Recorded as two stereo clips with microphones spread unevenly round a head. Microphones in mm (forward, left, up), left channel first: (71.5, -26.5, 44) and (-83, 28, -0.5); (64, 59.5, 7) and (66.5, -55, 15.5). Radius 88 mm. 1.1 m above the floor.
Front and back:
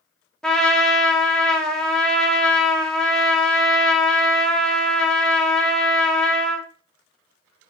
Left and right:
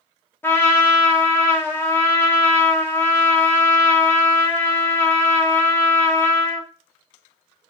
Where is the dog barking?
I don't hear a dog barking.